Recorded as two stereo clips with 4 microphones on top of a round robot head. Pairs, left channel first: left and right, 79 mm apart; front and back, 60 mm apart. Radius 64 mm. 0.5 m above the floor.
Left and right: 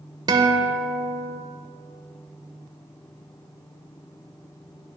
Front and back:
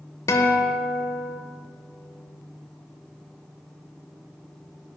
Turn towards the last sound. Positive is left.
turn(degrees=-50)